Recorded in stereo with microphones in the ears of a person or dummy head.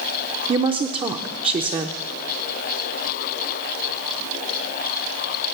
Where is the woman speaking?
30° right (ahead or behind), 0.6 m.